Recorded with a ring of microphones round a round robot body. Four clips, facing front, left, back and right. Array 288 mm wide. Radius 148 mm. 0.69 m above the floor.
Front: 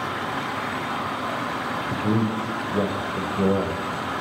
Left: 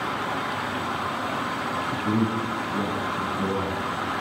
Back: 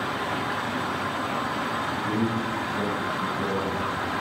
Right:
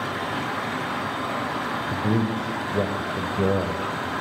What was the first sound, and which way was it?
A man speaking, 50° right.